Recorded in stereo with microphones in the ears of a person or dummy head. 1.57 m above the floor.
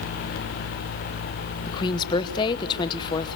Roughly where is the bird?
I don't hear a bird.